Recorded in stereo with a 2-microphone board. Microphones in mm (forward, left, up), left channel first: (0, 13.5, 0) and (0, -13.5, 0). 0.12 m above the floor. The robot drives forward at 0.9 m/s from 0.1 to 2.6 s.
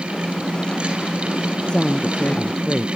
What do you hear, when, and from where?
1.7 s a woman speaking: 35° left (ahead or behind); by 2.9 s 50° left (ahead or behind)